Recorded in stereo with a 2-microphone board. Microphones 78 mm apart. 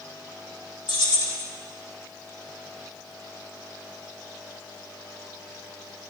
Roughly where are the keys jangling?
Left.